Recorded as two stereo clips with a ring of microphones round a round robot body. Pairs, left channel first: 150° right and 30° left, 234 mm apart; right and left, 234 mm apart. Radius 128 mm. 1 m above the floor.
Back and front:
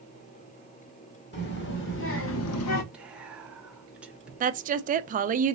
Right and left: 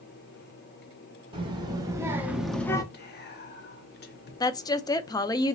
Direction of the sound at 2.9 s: 55° right.